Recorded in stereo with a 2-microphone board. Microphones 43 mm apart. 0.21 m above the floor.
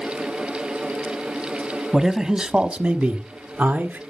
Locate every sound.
1.9 s a man speaking: 10° right (ahead or behind), 1.1 m; by 4.0 s 50° right (ahead or behind), 1.6 m